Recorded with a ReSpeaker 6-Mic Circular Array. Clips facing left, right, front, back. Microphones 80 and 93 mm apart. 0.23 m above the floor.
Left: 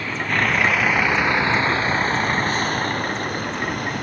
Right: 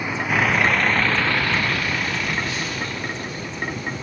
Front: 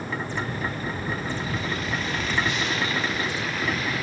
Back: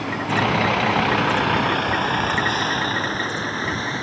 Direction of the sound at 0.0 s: 165° right.